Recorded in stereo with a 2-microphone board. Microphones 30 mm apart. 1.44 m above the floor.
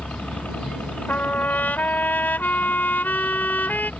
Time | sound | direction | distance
0.0 | a helicopter | 60° left (ahead or behind) | ?
1.1 | a trumpet | 75° left (ahead or behind) | ?